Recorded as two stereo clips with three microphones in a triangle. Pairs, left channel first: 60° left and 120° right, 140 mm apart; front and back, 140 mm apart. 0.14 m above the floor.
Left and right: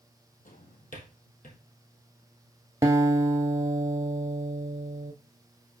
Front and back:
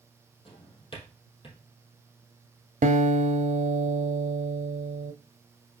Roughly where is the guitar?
Behind.